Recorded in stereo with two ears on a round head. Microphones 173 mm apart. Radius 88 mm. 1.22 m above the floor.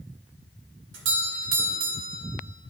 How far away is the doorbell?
About 2.0 m.